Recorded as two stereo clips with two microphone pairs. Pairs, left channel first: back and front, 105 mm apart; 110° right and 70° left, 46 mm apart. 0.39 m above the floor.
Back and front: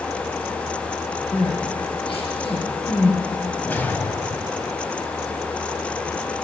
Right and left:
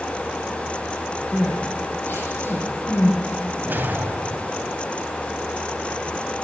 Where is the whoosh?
110° left, 2.5 m.